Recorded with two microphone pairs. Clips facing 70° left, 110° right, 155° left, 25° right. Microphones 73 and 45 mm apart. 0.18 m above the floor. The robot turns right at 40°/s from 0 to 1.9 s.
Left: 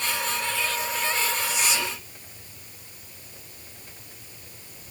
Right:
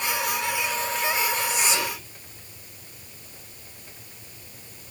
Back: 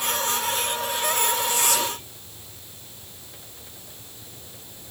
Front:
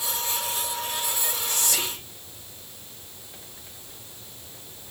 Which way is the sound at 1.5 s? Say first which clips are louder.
Right 1 dB, back 5 dB; 70° right.